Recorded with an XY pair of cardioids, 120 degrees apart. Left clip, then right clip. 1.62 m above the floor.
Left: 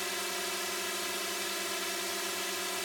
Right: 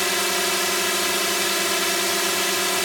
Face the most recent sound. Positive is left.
turn(degrees=-70)